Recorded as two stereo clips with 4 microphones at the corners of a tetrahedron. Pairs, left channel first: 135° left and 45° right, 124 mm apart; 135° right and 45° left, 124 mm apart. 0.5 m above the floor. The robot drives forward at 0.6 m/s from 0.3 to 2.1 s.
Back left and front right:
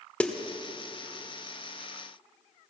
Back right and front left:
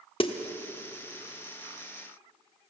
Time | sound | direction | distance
0.2 | a snare drum | 150° right | 1.0 m